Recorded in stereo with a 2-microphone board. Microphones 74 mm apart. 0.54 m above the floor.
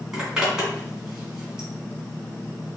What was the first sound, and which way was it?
A zipper, 10° right (ahead or behind).